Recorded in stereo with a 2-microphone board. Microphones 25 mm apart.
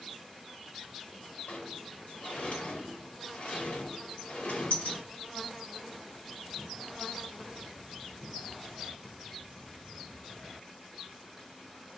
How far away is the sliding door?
About 1.4 m.